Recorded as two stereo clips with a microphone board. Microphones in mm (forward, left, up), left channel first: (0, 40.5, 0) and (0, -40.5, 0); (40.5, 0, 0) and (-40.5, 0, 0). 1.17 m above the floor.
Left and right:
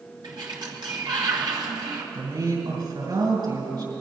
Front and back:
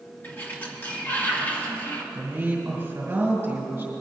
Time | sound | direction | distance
0.2 | a sliding door | 65° right | 1.8 m
2.1 | a woman speaking | 115° right | 5 m